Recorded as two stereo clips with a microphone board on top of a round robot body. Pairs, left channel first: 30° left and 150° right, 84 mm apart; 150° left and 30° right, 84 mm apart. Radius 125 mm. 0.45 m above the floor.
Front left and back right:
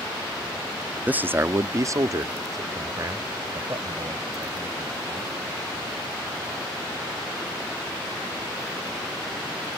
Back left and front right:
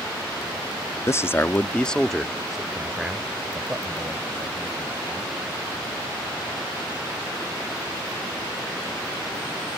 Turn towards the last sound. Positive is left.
turn(degrees=-100)